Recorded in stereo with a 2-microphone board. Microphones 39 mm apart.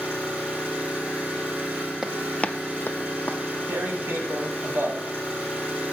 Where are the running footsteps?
10° right (ahead or behind), 0.8 m; by 3.4 s 50° left (ahead or behind), 1.5 m.